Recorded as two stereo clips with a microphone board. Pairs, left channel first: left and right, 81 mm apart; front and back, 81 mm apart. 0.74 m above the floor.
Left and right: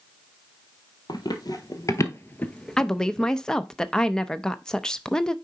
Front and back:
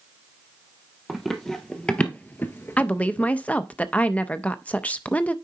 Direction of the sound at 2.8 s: 30° left.